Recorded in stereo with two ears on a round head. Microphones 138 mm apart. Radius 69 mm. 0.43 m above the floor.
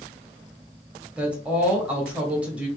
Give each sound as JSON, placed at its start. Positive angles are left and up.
{"t": 1.2, "sound": "a woman speaking", "side_deg": -10, "distance_m": 1.5}